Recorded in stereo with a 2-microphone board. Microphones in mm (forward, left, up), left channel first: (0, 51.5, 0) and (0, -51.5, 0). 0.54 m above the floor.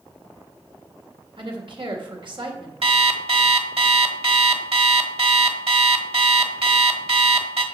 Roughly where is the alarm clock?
Right.